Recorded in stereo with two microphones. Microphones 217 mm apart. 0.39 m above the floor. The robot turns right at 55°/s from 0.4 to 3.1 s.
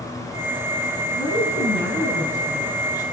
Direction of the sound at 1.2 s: 60° left.